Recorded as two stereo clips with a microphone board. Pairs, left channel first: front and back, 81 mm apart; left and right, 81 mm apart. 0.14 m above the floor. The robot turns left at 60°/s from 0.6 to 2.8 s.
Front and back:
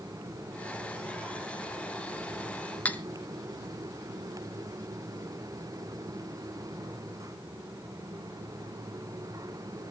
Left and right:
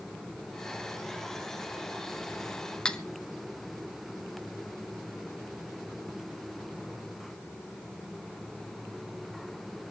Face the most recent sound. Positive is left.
turn(degrees=25)